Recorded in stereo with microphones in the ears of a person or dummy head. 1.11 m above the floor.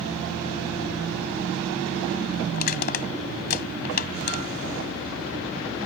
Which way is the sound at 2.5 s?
55° left (ahead or behind).